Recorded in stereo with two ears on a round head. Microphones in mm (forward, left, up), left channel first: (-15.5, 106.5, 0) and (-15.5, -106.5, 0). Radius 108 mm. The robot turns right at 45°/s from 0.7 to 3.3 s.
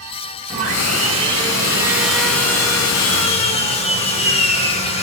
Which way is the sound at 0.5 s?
65° right.